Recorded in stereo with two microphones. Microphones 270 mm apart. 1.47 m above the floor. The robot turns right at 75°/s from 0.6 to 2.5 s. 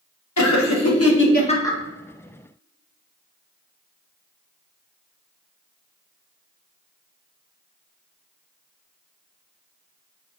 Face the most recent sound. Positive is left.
turn(degrees=-130)